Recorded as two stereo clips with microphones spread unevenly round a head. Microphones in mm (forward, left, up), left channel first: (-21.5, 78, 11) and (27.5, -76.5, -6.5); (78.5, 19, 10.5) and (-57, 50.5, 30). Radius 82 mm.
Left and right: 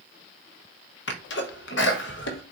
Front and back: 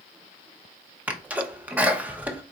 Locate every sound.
1.1 s a sneeze: 85° left, 1.0 m